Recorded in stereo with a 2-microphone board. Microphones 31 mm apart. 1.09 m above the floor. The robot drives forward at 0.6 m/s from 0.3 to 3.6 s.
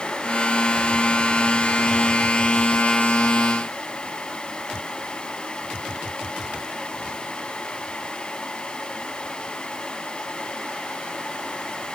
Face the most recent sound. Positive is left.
No sound to turn to.